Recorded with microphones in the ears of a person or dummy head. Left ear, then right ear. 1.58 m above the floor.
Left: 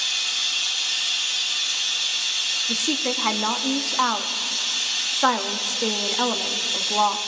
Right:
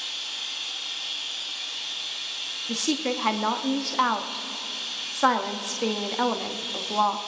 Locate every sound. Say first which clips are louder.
0.0 s running water: left 8 dB; 70° left (ahead or behind), 1.1 m
2.7 s a woman speaking: left 4 dB; 5° left (ahead or behind), 0.8 m